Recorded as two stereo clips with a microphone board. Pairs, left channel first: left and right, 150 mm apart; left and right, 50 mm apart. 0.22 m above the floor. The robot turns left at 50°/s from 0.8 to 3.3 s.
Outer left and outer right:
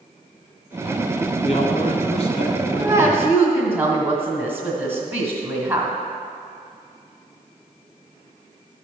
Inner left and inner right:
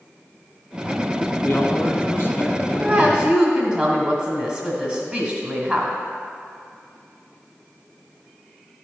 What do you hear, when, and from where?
1.4 s a man speaking: 110° left, 1.6 m; by 3.2 s 20° left, 1.6 m
2.8 s a woman speaking: 20° right (ahead or behind), 1.6 m; by 6.0 s 15° right (ahead or behind), 1.6 m